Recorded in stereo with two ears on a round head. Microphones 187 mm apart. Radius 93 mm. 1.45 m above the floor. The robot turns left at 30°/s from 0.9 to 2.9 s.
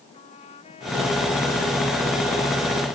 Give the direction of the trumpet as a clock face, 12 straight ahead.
11 o'clock.